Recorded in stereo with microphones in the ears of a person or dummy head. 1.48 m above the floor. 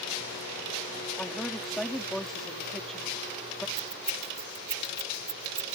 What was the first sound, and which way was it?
A woman speaking, 5° left (ahead or behind).